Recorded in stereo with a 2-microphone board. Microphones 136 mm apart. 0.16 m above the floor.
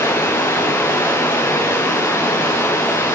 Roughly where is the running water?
Centre.